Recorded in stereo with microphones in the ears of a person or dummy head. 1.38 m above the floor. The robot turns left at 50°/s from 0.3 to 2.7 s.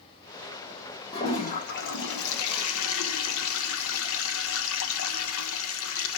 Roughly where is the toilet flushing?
Behind left.